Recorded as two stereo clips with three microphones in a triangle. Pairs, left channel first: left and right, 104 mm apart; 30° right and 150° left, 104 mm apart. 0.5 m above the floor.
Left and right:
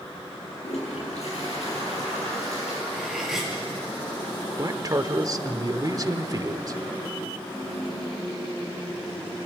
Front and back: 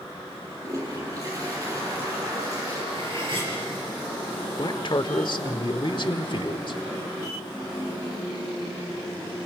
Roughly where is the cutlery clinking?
Behind.